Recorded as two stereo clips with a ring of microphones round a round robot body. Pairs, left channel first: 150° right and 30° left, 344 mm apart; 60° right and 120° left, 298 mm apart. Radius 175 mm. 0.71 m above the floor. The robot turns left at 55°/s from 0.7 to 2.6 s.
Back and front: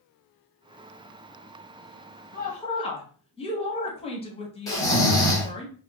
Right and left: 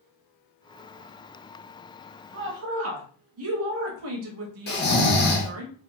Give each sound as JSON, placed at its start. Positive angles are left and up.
{"t": 2.3, "sound": "a woman speaking", "azimuth_deg": 155, "distance_m": 0.7}
{"t": 4.7, "sound": "snoring", "azimuth_deg": -75, "distance_m": 0.8}